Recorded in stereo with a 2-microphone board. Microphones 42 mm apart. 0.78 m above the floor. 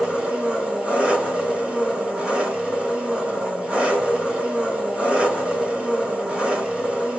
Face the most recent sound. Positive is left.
turn(degrees=-30)  # may be behind; listen again after turning